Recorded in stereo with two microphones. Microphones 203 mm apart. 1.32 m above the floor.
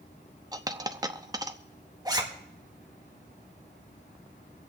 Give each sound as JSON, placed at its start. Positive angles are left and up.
{"t": 0.5, "sound": "a dropped coin", "side_deg": -20, "distance_m": 0.8}
{"t": 2.0, "sound": "a zipper", "side_deg": -20, "distance_m": 1.8}